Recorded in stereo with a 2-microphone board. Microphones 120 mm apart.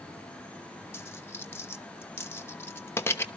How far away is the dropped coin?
About 0.9 m.